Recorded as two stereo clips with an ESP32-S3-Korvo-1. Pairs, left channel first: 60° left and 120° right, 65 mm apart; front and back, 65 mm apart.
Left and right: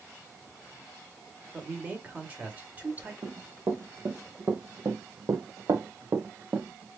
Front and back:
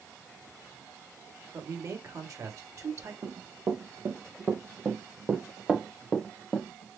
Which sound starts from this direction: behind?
A man speaking, at 1.5 s.